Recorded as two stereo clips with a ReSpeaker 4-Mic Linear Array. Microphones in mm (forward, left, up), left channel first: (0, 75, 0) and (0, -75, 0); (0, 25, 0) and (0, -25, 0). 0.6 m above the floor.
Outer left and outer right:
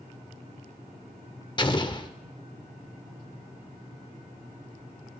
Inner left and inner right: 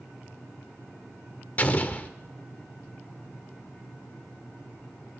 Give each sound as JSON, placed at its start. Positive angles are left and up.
{"t": 1.6, "sound": "an explosion", "side_deg": 30, "distance_m": 0.8}